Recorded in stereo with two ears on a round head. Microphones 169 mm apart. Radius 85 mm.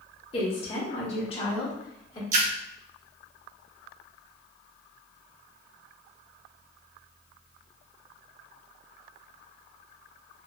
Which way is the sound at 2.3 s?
40° right (ahead or behind).